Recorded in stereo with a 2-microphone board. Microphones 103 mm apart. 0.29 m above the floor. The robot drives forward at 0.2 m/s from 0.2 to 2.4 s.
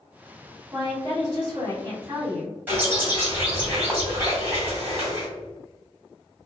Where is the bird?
15° right (ahead or behind), 1.9 m.